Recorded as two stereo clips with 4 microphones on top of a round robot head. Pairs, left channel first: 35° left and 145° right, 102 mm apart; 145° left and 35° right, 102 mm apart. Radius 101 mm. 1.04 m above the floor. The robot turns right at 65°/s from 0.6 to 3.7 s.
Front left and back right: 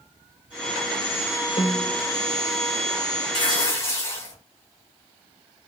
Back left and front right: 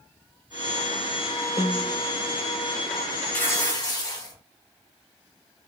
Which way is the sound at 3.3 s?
70° left.